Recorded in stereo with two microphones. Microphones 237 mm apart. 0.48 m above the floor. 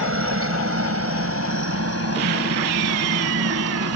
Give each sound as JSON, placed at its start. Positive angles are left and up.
{"t": 0.0, "sound": "a helicopter", "side_deg": -55}